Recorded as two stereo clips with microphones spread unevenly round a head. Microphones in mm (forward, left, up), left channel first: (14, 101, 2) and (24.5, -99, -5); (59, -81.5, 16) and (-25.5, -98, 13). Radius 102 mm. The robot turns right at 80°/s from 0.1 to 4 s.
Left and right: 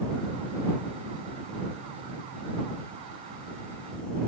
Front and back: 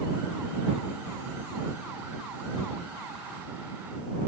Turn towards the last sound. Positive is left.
No sound to turn to.